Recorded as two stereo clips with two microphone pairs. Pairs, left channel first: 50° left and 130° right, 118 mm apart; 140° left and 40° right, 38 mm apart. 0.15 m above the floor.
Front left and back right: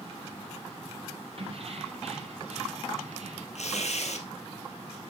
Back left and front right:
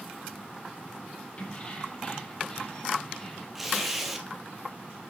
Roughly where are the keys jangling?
Behind.